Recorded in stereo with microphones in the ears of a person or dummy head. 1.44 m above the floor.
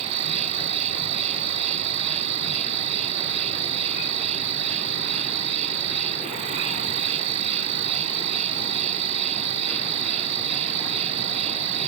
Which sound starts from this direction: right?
An insect, at 0.0 s.